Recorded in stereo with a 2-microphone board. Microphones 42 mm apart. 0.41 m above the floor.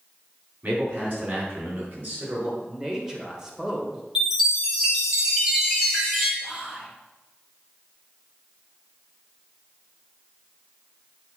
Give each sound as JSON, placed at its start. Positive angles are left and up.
{"t": 0.6, "sound": "a man speaking", "side_deg": -50, "distance_m": 3.5}
{"t": 2.6, "sound": "a man speaking", "side_deg": -15, "distance_m": 1.8}
{"t": 4.2, "sound": "a chime", "side_deg": -15, "distance_m": 2.0}
{"t": 6.4, "sound": "whispering", "side_deg": -20, "distance_m": 1.0}